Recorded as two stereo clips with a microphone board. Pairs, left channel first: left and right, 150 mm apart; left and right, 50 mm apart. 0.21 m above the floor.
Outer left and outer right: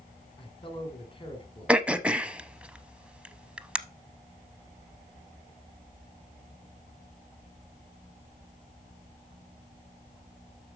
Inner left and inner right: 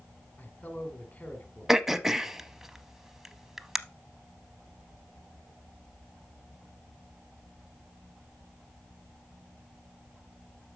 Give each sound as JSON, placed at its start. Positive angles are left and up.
{"t": 0.4, "sound": "a man speaking", "side_deg": 35, "distance_m": 1.4}
{"t": 1.7, "sound": "throat clearing", "side_deg": -10, "distance_m": 0.6}